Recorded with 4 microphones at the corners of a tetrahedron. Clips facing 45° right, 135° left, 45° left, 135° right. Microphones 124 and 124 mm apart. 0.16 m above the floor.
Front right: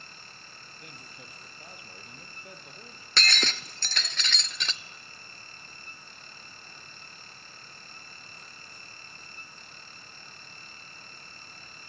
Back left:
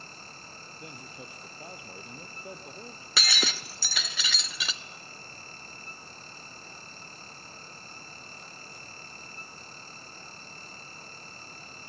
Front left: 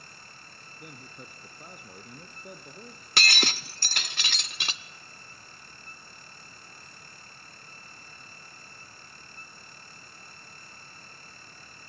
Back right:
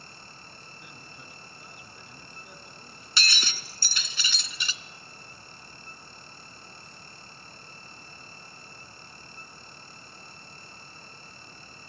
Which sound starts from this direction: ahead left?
Breaking glass, at 3.2 s.